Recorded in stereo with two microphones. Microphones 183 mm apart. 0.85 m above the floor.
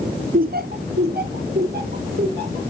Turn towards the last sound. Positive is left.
turn(degrees=-55)  # may be behind; listen again after turning